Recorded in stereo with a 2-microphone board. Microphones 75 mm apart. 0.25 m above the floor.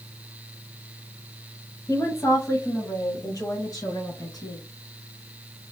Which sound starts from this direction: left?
A woman speaking, at 1.9 s.